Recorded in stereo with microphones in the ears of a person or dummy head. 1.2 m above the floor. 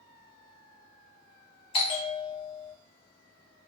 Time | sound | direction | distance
1.7 | a bell | 30° left (ahead or behind) | 0.9 m